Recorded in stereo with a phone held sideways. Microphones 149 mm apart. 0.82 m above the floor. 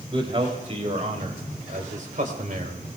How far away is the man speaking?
About 4 m.